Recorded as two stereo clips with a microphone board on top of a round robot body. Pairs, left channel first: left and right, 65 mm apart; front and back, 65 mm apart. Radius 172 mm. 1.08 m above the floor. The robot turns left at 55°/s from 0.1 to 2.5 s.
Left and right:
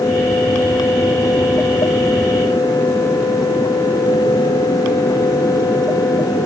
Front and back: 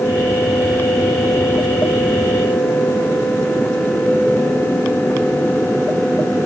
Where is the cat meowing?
No cat meowing in this recording.